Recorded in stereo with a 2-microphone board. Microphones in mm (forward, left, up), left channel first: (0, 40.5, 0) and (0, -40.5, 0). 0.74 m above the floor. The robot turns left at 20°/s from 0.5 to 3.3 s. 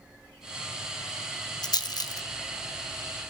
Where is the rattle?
60° left (ahead or behind), 0.5 m; by 2.2 s 55° left (ahead or behind), 0.5 m.